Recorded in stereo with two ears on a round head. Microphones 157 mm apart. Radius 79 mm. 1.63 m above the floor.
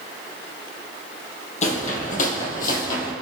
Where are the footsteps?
40° left (ahead or behind), 3 m; by 3.1 s 55° left (ahead or behind), 3.5 m.